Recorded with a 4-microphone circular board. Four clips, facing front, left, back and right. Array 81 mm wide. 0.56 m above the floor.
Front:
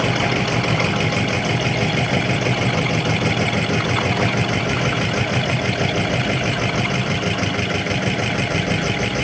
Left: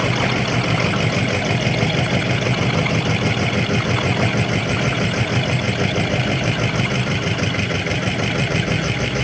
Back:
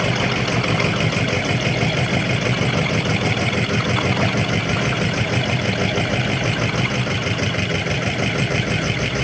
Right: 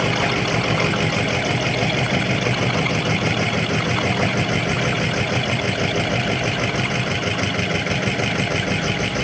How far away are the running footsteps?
I don't hear running footsteps.